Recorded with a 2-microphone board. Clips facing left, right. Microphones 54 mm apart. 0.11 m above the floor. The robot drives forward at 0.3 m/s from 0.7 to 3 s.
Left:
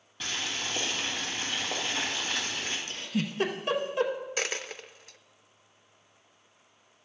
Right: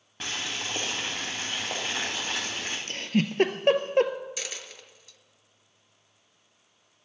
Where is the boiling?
45° right (ahead or behind), 5 m; by 2.8 s 50° right (ahead or behind), 4.5 m.